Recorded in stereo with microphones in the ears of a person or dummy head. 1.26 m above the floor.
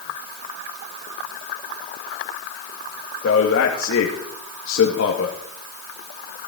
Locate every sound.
3.2 s a man speaking: 80° left, 2 m